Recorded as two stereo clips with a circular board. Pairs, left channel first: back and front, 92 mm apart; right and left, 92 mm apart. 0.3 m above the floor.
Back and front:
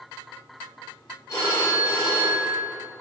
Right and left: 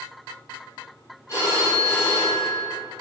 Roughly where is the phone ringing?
Behind right.